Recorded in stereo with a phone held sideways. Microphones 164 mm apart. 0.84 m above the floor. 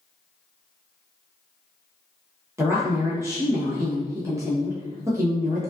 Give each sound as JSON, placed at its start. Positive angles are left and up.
{"t": 2.6, "sound": "a woman speaking", "side_deg": -20, "distance_m": 0.6}